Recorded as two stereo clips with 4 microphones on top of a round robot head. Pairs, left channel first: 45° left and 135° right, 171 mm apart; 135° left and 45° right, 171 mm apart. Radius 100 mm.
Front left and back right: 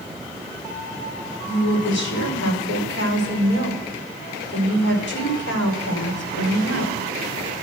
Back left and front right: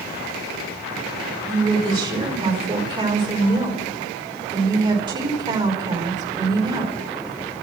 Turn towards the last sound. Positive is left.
turn(degrees=20)